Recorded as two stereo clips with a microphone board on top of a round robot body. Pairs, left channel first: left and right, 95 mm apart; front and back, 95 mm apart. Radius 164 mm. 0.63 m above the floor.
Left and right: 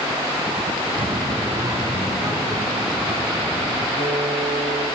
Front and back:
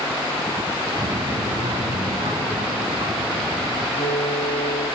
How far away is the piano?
About 4 m.